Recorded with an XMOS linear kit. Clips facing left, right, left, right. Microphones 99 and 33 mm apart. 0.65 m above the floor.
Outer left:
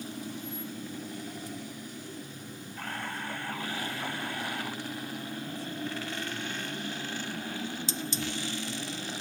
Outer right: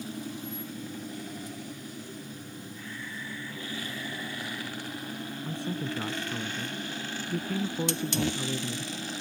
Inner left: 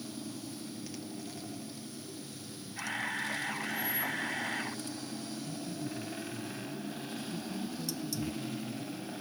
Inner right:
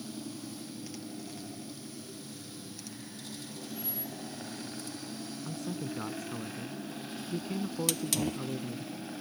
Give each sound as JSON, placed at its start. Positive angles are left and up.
{"t": 2.8, "sound": "a camera shutter", "side_deg": 60}
{"t": 5.5, "sound": "a man speaking", "side_deg": -70}
{"t": 7.9, "sound": "a hiss", "side_deg": -65}